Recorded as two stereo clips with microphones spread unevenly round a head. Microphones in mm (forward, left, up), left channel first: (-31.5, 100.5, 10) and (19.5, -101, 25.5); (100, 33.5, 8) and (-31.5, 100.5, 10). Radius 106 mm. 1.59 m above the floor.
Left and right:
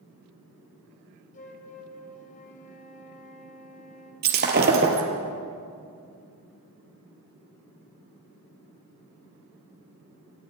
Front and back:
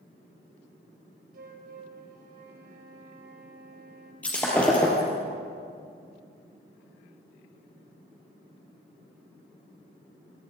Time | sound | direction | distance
1.3 | a flute | 160° left | 3 m
4.2 | breaking glass | 110° right | 3 m